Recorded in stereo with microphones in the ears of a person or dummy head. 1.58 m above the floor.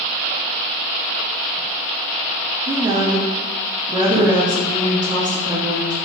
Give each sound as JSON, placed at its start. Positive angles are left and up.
{"t": 2.7, "sound": "a woman speaking", "side_deg": -25, "distance_m": 0.5}